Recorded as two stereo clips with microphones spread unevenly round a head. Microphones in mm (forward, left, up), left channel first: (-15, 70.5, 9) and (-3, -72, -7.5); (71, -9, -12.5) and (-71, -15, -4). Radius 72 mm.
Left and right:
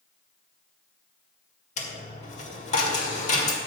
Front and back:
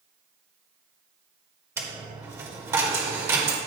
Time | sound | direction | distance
1.8 | a dropped coin | 115° left | 1.7 m